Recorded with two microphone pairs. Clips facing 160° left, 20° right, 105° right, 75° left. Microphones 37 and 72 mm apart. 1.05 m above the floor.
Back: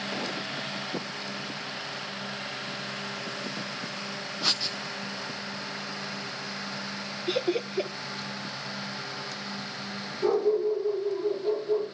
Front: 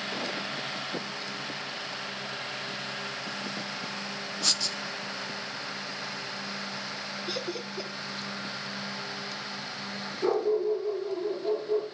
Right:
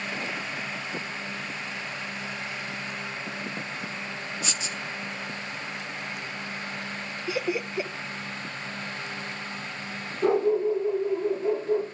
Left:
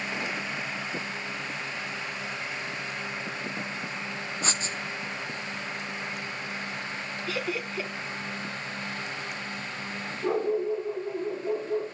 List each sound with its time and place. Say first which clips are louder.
4.4 s writing: back 2 dB, left 5 dB; 100° left, 0.7 m
7.3 s laughter: back 10 dB, right 4 dB; 165° right, 0.6 m
10.2 s a dog barking: back 2 dB, right 4 dB; 95° right, 6 m